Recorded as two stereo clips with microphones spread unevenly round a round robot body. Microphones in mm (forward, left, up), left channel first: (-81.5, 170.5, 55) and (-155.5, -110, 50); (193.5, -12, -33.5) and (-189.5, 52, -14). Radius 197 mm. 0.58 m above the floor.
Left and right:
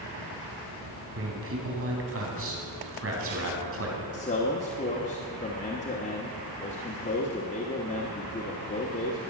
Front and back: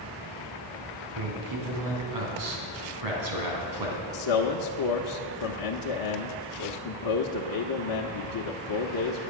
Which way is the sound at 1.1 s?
150° right.